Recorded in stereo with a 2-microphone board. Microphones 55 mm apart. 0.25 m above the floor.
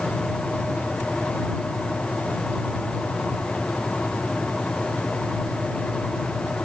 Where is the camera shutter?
I don't hear a camera shutter.